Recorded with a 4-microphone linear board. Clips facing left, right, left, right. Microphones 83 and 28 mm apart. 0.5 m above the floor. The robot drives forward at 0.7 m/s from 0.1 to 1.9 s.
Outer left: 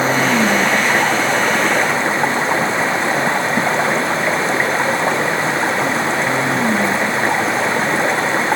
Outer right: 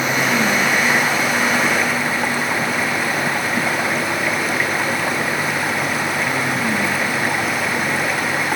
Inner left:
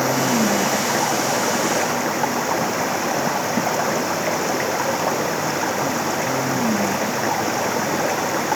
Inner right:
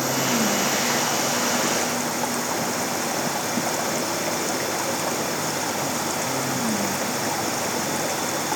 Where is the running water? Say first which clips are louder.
Outer left 3 dB, inner left 4 dB; 35° left (ahead or behind); by 8.6 s 30° left (ahead or behind).